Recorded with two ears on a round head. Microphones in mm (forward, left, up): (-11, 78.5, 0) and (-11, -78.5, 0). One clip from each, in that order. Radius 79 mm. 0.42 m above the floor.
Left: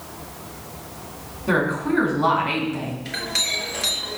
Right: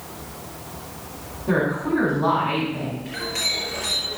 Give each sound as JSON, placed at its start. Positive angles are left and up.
{"t": 1.5, "sound": "a woman speaking", "side_deg": 65, "distance_m": 4.5}
{"t": 3.0, "sound": "a clink", "side_deg": 60, "distance_m": 3.5}